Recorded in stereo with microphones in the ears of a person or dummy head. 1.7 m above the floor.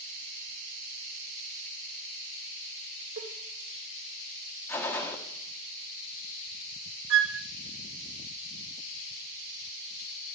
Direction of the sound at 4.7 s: 15° left (ahead or behind).